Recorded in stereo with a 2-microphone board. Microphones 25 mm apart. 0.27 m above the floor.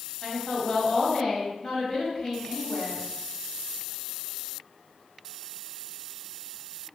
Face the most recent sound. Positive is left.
turn(degrees=35)  # may be behind; listen again after turning